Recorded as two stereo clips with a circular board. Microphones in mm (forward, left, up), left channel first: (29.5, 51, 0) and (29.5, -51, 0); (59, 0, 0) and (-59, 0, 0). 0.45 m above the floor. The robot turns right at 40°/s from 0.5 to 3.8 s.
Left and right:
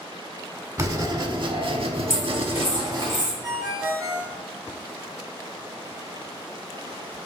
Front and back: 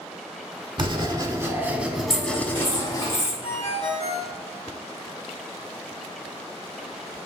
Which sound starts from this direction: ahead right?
A ringtone, at 3.4 s.